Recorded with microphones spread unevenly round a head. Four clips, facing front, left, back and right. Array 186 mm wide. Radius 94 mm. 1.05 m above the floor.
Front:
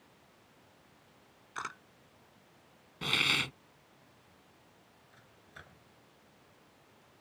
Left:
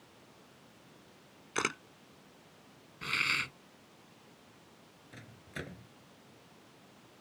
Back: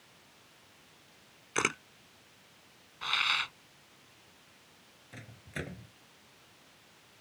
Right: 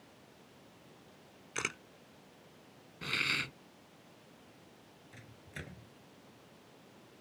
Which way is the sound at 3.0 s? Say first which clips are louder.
Left 2 dB, back 1 dB; 10° right.